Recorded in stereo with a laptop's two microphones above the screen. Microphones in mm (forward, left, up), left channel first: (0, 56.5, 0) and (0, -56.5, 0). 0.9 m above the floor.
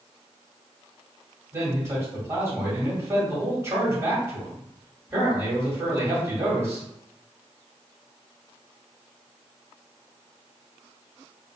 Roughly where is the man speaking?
Right.